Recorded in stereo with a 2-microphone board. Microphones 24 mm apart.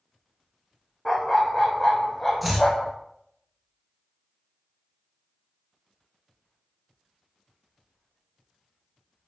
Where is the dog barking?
Centre (ahead or behind), 1.6 m; by 2.9 s 30° left (ahead or behind), 0.9 m.